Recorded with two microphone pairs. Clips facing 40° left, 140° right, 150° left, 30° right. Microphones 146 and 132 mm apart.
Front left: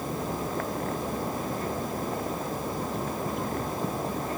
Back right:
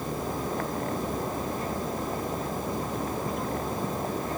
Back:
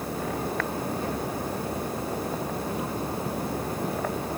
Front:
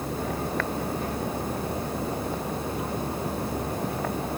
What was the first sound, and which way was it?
Only background noise.